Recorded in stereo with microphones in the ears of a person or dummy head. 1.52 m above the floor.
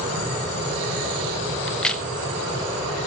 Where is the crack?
5° left (ahead or behind), 0.9 m.